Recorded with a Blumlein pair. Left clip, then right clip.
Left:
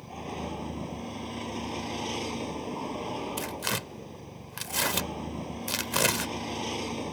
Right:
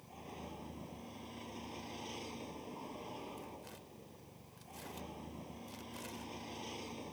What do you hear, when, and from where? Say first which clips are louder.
0.0 s a vehicle: left 13 dB; 60° left
3.4 s tearing paper: left 19 dB; 45° left